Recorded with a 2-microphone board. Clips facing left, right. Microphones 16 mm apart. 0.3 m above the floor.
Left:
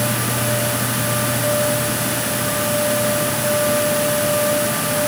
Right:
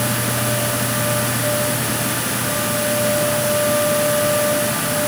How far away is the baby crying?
I don't hear a baby crying.